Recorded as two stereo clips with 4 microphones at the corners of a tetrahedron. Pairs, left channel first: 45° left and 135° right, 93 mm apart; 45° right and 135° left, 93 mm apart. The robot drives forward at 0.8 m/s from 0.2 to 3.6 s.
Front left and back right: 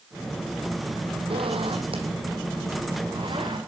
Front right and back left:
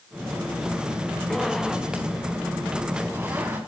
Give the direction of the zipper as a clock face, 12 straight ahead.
4 o'clock.